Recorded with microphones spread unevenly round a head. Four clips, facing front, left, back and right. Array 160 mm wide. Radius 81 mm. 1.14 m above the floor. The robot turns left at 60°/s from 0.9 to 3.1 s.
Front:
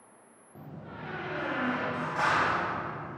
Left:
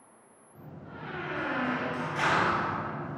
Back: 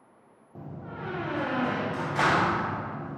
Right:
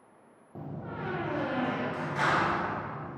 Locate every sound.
0.6 s a door slam: 110° right, 0.6 m; by 3.2 s 120° left, 0.6 m